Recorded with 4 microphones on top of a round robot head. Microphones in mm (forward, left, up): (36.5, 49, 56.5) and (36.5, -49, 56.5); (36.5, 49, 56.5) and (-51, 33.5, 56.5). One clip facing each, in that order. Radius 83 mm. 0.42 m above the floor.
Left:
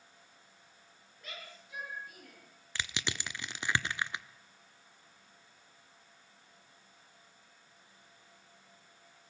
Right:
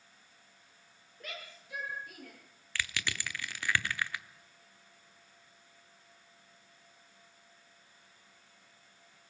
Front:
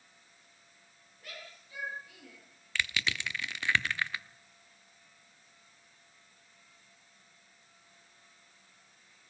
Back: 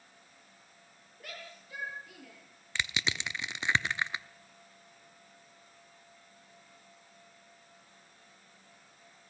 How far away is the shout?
About 10 m.